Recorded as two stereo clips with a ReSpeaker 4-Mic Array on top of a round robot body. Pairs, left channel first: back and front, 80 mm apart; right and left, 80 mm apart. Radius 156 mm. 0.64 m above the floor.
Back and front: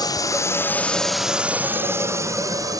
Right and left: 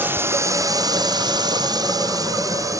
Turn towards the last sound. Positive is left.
turn(degrees=45)